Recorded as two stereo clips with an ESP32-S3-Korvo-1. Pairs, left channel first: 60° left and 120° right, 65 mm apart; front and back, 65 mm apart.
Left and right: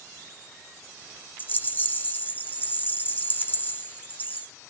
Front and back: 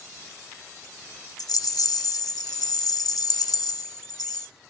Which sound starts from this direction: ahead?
A rattle, at 1.4 s.